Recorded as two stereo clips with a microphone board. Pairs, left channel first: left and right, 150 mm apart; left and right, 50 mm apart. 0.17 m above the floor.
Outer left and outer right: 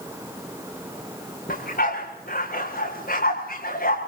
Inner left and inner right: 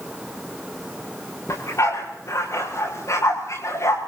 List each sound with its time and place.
1.5 s a dog barking: 85° left, 7.5 m